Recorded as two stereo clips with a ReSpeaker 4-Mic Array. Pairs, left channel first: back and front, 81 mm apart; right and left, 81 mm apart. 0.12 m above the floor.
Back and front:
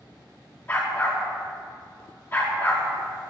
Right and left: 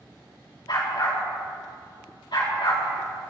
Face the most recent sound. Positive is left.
turn(degrees=-120)